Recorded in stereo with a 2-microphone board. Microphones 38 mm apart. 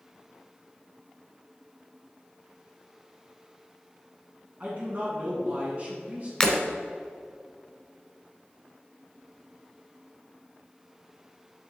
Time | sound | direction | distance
4.6 | a man speaking | 35° right (ahead or behind) | 1.8 m
6.4 | breaking glass | 10° left (ahead or behind) | 1.2 m